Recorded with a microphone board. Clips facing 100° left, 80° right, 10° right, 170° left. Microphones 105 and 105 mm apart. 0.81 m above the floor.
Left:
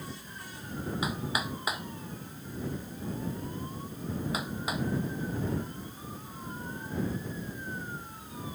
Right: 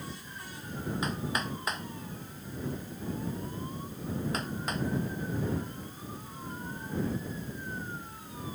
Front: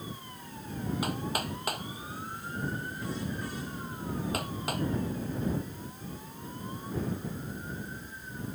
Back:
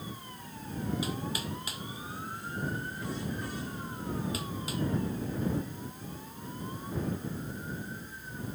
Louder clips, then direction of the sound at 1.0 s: Even, front 3 dB; 20° left.